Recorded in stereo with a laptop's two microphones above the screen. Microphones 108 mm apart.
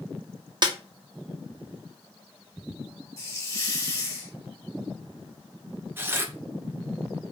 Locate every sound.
0.6 s a snare drum: 45° right (ahead or behind), 0.7 m
3.2 s a hiss: 30° left (ahead or behind), 0.7 m
6.0 s tearing paper: 20° right (ahead or behind), 0.6 m